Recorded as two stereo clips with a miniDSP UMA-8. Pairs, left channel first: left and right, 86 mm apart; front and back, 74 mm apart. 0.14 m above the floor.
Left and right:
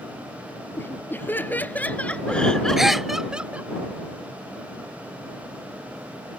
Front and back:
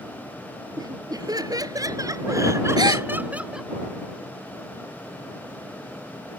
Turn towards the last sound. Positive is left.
turn(degrees=-175)